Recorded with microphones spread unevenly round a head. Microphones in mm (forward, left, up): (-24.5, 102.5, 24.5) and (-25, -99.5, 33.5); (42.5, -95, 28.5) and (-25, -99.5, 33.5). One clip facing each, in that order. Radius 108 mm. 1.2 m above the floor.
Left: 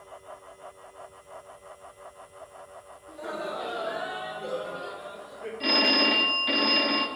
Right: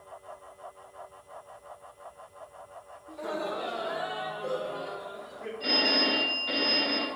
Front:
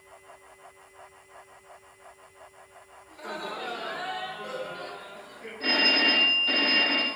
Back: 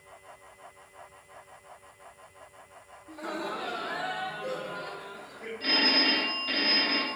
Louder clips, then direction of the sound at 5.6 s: Left 3 dB, front 2 dB; 70° left.